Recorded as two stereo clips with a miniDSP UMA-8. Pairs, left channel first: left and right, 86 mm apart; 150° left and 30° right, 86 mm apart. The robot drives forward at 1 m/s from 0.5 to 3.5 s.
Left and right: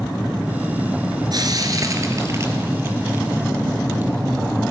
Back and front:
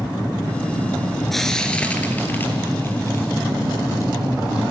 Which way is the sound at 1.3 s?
120° right.